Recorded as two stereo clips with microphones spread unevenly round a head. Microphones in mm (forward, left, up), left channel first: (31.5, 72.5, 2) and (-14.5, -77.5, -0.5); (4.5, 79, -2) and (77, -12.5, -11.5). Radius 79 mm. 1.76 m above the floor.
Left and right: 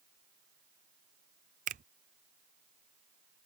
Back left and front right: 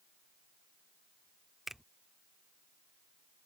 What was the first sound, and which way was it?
A finger snap, 145° right.